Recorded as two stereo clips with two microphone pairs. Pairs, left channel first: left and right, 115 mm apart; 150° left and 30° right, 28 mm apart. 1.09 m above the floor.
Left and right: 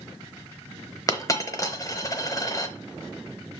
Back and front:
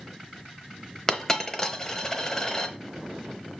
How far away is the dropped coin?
About 1.0 m.